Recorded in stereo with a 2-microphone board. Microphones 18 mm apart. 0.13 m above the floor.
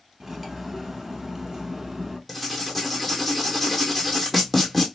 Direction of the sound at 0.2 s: 15° right (ahead or behind).